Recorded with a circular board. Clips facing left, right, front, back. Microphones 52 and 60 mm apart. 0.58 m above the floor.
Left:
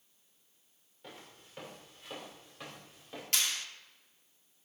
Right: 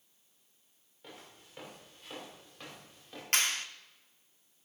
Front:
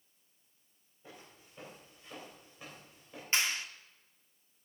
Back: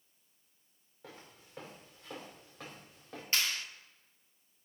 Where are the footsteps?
175° right, 5.5 m; by 3.2 s 175° left, 5 m.